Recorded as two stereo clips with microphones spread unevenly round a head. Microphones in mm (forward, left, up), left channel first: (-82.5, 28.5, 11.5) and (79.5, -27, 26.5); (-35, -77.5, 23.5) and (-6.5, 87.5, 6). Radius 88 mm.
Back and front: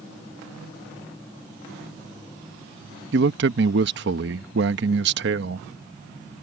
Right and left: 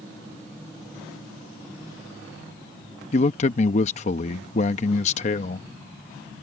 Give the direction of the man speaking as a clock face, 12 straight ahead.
2 o'clock.